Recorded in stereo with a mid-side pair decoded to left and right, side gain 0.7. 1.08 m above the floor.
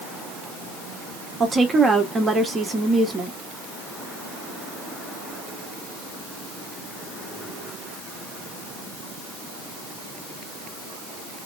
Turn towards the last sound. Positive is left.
turn(degrees=-20)